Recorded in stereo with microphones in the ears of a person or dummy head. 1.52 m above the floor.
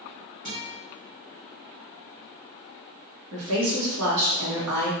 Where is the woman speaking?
80° right, 1.4 m.